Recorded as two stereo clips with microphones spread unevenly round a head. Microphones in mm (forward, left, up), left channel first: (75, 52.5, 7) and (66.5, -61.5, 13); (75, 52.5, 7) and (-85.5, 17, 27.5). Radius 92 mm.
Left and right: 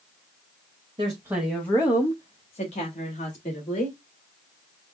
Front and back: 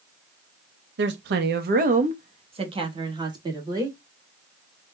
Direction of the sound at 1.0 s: 150° right.